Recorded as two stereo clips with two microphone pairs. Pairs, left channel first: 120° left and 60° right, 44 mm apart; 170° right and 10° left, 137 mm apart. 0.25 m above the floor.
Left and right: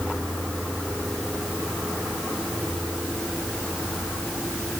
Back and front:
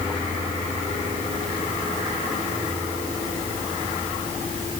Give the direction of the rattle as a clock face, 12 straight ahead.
No rattle in this recording.